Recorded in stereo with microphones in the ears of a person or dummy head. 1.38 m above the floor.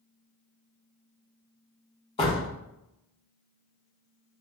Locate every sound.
2.2 s a door slam: 35° left (ahead or behind), 1.0 m